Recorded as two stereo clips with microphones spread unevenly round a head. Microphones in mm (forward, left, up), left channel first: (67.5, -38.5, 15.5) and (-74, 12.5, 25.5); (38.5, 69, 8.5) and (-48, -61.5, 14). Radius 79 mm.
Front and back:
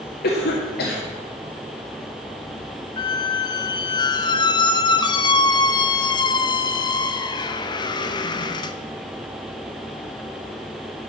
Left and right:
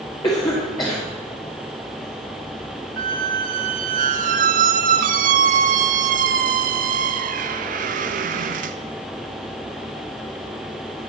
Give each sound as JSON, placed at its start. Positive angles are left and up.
{"t": 0.2, "sound": "a cough", "azimuth_deg": -10, "distance_m": 2.0}
{"t": 3.0, "sound": "a squeak", "azimuth_deg": -80, "distance_m": 0.6}